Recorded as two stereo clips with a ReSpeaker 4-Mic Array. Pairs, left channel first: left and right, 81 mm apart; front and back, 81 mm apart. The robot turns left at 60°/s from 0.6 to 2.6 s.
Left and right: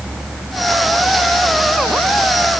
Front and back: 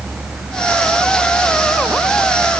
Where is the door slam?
No door slam in this recording.